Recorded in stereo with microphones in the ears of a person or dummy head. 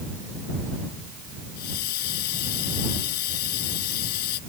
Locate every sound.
1.6 s a hiss: 55° left (ahead or behind)